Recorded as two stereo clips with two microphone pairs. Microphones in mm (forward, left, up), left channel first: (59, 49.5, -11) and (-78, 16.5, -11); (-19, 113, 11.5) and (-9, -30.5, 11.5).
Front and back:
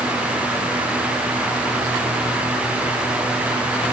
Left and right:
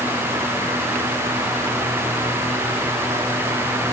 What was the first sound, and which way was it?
Only background noise.